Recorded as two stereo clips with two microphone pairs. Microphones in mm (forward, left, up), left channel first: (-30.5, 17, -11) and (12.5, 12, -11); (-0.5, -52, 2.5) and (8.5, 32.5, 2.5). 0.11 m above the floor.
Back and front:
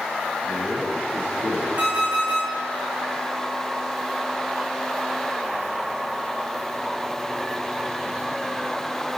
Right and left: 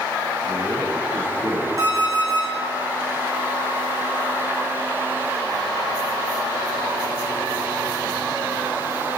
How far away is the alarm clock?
About 5.5 m.